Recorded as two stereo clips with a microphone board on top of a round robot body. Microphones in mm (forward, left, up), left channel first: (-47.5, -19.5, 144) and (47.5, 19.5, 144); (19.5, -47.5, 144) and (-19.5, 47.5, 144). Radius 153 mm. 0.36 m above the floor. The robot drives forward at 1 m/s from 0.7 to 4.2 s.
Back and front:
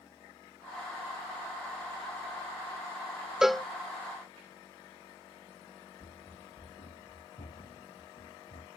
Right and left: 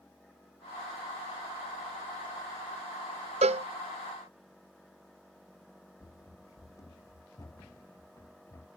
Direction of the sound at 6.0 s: 125° right.